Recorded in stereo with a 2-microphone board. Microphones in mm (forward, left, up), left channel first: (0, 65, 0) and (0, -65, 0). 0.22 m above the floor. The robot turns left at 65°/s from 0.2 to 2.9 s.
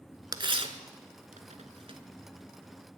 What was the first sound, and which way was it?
Tearing paper, 30° right (ahead or behind).